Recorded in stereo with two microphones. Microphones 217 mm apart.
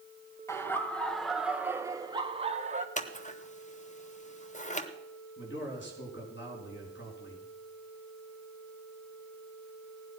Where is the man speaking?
60° left (ahead or behind), 5 m.